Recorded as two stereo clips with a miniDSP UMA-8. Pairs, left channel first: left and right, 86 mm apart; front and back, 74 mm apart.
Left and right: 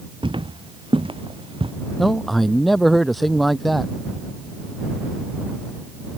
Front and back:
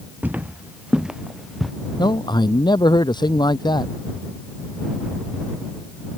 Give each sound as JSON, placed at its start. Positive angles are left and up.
{"t": 0.2, "sound": "footsteps", "azimuth_deg": -110}
{"t": 2.0, "sound": "a man speaking", "azimuth_deg": 0}